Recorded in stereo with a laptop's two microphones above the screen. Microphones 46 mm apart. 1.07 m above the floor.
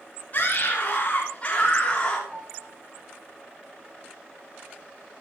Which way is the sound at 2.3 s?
25° right (ahead or behind).